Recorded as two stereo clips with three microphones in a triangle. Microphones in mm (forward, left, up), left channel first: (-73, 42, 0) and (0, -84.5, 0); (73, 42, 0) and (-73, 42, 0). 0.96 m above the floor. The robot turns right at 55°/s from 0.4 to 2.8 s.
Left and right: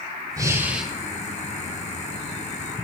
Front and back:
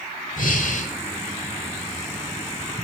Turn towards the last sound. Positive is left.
turn(degrees=135)